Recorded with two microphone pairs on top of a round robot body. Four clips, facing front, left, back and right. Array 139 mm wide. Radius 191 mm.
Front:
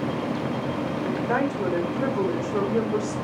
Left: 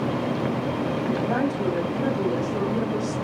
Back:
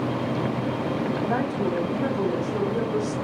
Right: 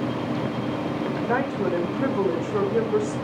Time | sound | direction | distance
1.2 | a woman speaking | 45° right | 4 m